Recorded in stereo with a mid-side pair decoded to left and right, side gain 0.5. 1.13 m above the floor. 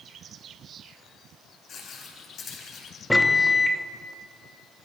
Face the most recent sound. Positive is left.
turn(degrees=10)